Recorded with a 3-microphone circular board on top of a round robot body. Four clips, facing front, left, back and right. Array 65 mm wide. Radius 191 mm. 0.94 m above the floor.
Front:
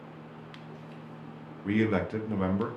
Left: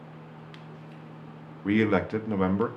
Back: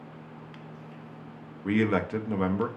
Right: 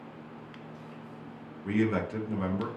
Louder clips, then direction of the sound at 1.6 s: Left 4 dB, back 2 dB; 115° left.